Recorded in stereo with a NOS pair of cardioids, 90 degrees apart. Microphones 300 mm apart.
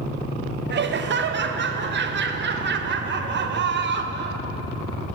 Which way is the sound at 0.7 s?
40° right.